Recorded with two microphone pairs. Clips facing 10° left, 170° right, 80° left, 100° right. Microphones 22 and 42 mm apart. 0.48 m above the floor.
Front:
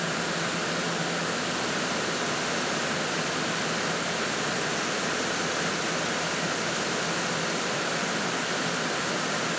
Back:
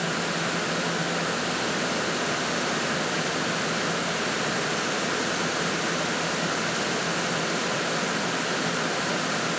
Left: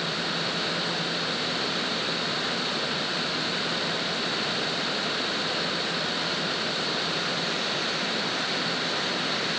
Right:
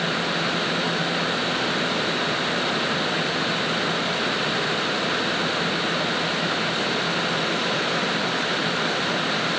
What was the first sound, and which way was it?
Only background noise.